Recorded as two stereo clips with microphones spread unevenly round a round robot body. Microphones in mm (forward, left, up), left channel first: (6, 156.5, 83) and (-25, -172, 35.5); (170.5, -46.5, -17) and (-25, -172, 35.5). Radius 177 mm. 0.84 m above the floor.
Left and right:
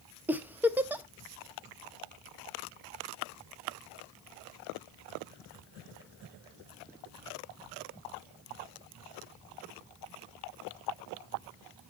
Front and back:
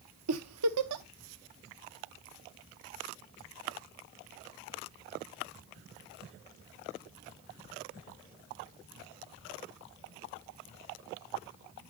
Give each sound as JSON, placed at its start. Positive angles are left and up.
{"t": 0.3, "sound": "a giggle", "azimuth_deg": 180, "distance_m": 0.6}